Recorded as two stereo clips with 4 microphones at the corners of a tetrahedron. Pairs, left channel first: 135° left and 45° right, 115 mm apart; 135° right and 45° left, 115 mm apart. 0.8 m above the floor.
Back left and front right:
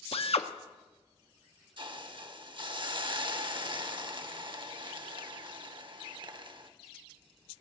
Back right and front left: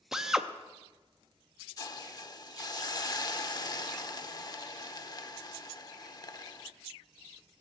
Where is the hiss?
85° right, 0.8 m.